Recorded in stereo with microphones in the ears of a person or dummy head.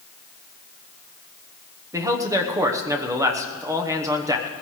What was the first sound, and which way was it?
A man speaking, 15° right (ahead or behind).